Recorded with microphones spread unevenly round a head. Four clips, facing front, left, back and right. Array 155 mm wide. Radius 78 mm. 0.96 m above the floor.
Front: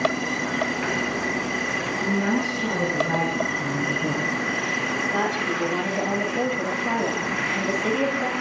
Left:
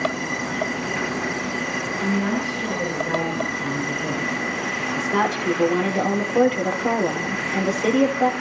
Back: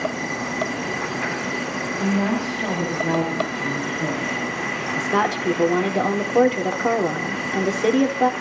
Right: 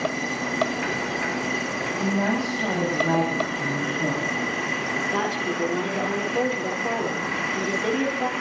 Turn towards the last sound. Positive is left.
turn(degrees=160)